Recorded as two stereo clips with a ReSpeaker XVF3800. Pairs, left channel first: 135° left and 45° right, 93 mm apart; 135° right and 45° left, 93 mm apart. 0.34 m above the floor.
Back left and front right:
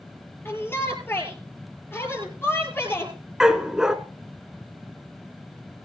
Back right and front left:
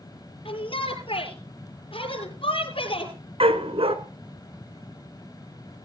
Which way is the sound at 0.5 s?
155° right.